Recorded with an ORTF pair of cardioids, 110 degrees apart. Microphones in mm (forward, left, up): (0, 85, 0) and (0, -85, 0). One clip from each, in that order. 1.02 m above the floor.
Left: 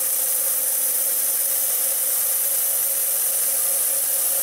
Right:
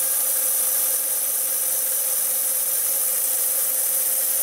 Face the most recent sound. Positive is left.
No sound to turn to.